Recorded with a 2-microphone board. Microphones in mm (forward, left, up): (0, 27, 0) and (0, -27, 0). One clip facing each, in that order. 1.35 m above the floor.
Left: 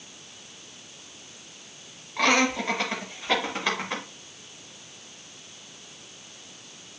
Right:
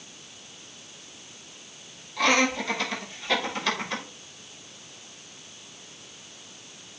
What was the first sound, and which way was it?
Laughter, 30° left (ahead or behind).